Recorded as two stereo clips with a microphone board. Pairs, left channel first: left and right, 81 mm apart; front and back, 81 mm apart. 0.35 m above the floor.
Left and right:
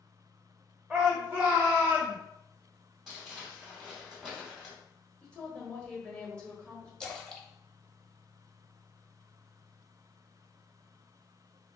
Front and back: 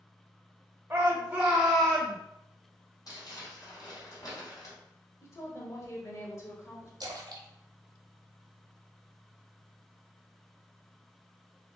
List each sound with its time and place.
0.9 s a shout: 165° right, 1.1 m; by 2.2 s 60° right, 1.1 m
3.1 s crumpling: 10° right, 2 m
5.2 s a woman speaking: 20° left, 1.1 m
7.0 s a splash: 170° left, 0.8 m